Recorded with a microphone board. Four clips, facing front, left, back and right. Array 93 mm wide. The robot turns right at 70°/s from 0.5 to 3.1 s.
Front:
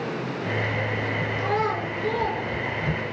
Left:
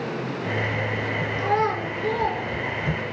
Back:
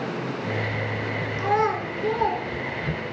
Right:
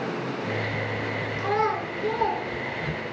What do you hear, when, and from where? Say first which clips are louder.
1.4 s a child speaking: left 2 dB, back 4 dB; 150° left, 0.7 m; by 2.4 s 140° right, 0.7 m